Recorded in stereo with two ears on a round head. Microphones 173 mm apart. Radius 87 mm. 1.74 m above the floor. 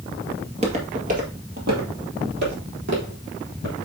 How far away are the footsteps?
About 1.9 m.